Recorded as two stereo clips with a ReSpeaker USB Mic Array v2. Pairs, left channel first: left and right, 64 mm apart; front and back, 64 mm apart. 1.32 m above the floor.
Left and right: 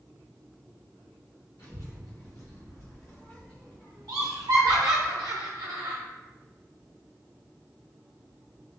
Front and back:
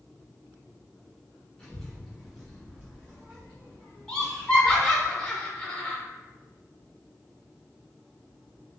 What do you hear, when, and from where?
1.6 s a child speaking: 70° left, 1.0 m; by 5.1 s 165° right, 1.7 m
4.1 s laughter: 75° right, 0.5 m